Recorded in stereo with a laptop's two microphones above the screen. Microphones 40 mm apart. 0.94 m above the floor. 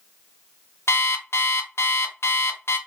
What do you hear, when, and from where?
0.9 s an alarm clock: 80° left, 0.5 m